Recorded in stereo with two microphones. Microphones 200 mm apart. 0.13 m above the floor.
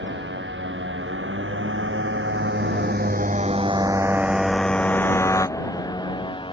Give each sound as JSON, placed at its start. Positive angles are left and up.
{"t": 0.0, "sound": "a motorcycle", "side_deg": -70}